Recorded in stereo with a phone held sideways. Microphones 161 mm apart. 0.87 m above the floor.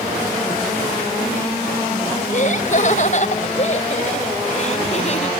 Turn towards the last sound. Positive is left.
turn(degrees=45)  # may be behind; listen again after turning